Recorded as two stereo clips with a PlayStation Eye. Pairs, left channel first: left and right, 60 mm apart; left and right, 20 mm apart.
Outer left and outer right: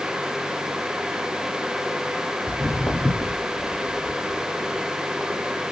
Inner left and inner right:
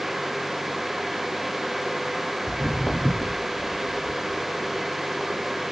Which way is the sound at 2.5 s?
30° left (ahead or behind).